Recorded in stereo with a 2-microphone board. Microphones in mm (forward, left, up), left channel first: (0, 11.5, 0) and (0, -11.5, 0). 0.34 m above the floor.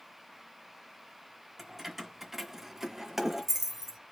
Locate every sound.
1.6 s keys jangling: 10° right (ahead or behind), 0.9 m; by 4.0 s 15° right (ahead or behind), 0.7 m